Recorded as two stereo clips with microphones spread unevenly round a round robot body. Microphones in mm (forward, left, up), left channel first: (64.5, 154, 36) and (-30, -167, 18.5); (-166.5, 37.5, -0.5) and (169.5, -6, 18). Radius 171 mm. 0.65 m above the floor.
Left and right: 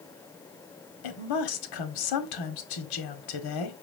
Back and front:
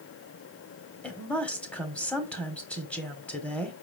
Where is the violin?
No violin in this recording.